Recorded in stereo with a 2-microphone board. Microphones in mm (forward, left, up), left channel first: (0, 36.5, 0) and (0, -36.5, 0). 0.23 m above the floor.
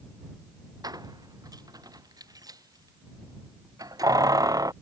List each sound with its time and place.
0.8 s keys jangling: 65° right (ahead or behind); by 4.7 s 55° right (ahead or behind)